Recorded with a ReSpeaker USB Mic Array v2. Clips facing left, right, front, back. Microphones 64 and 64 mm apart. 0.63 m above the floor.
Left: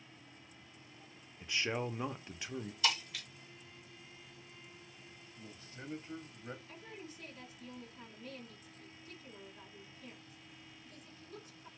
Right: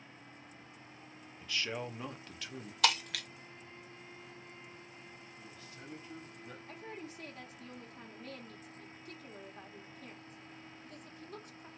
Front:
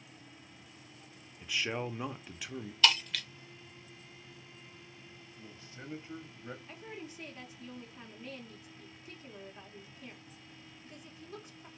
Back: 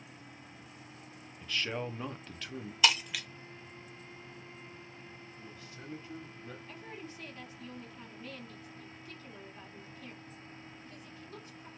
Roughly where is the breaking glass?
Right.